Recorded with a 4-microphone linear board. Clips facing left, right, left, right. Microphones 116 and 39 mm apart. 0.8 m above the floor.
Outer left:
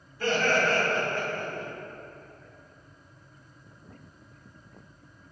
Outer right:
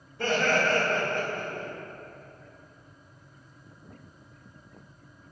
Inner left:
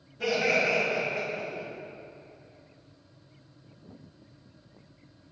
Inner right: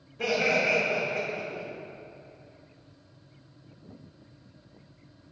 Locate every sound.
0.2 s laughter: 70° right (ahead or behind), 1.2 m